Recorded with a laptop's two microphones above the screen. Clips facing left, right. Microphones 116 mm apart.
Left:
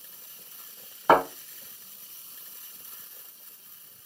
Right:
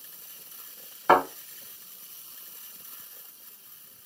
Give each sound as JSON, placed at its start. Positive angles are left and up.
{"t": 1.1, "sound": "a thud", "side_deg": 5, "distance_m": 2.0}